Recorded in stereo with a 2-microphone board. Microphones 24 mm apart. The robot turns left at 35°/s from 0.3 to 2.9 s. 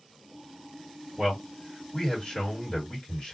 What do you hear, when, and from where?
1.2 s a man speaking: 175° left, 1.6 m; by 3.4 s 115° left, 1.6 m